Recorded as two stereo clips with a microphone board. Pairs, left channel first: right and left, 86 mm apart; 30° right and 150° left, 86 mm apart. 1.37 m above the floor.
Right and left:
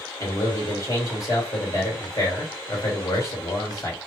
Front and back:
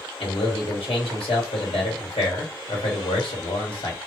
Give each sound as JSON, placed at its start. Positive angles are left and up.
{"t": 0.2, "sound": "a man speaking", "azimuth_deg": -35, "distance_m": 1.5}